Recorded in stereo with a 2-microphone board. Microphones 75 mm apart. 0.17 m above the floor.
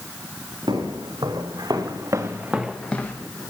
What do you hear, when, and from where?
0.7 s footsteps: 75° right (ahead or behind), 3 m; by 3.2 s 30° left (ahead or behind), 1.3 m